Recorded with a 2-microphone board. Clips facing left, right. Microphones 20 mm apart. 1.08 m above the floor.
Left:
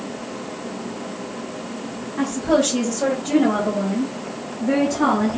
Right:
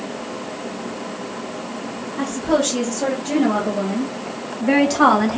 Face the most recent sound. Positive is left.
turn(degrees=-55)  # may be behind; listen again after turning